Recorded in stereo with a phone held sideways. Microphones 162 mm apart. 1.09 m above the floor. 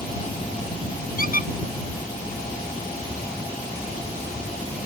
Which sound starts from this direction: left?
A squeak, at 1.2 s.